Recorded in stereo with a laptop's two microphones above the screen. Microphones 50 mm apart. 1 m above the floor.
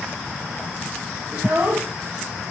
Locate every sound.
1.3 s a child speaking: 40° right (ahead or behind), 1.9 m